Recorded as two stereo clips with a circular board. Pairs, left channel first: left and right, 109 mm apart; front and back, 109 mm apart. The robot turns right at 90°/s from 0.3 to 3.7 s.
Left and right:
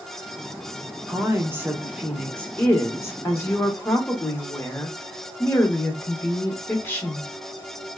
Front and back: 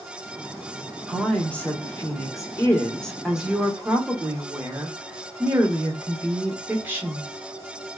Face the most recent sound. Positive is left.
turn(degrees=135)